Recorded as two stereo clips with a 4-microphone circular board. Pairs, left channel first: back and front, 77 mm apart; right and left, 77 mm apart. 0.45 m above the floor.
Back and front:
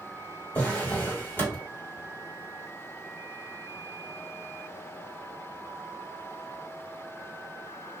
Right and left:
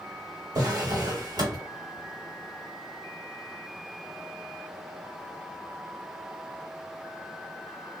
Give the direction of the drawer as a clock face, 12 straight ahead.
8 o'clock.